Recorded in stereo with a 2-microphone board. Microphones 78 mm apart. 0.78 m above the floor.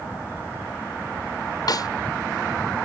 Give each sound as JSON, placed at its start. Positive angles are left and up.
{"t": 1.7, "sound": "a snare drum", "side_deg": 55}